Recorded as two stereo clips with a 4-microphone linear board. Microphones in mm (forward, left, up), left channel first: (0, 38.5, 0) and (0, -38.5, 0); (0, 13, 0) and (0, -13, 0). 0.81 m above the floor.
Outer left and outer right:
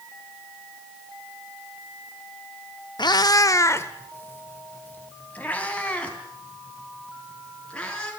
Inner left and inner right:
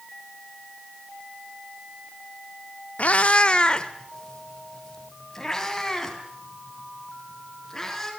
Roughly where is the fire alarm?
No fire alarm in this recording.